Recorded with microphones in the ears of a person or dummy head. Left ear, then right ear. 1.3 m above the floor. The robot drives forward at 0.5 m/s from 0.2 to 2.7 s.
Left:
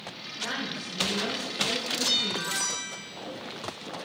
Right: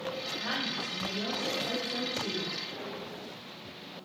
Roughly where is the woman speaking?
Right.